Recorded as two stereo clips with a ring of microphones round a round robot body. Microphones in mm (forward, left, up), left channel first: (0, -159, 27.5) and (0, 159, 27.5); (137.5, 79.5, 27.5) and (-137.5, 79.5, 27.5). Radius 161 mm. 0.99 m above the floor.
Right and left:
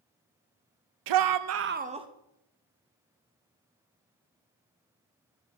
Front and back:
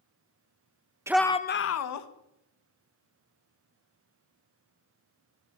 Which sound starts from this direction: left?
A shout, at 1.1 s.